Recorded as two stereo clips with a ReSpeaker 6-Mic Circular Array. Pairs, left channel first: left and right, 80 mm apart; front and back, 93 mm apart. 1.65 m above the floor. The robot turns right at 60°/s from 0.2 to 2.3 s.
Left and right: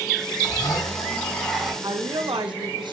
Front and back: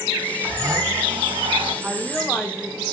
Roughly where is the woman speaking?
Right.